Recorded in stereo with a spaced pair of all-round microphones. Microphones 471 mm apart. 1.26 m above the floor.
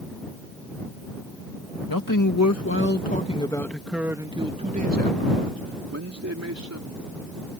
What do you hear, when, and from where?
1.9 s a man speaking: 45° left (ahead or behind); by 7.0 s 35° right (ahead or behind)